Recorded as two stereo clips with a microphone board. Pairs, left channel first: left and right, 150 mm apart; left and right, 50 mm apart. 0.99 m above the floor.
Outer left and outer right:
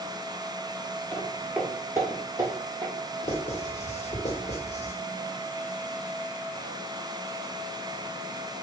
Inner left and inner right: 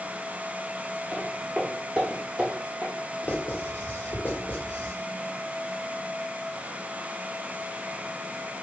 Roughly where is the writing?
Left.